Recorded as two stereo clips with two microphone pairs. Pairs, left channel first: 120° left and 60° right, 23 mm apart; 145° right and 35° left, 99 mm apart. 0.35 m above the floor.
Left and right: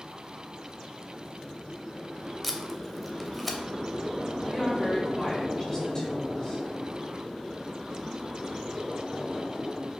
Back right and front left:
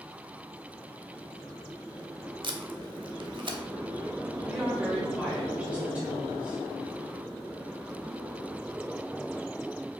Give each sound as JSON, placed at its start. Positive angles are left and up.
{"t": 2.4, "sound": "tape being pulled", "azimuth_deg": 30, "distance_m": 0.6}
{"t": 4.5, "sound": "a woman speaking", "azimuth_deg": 95, "distance_m": 1.5}